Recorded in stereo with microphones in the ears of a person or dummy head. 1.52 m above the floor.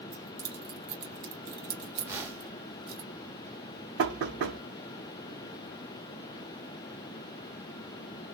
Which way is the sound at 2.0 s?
10° right (ahead or behind).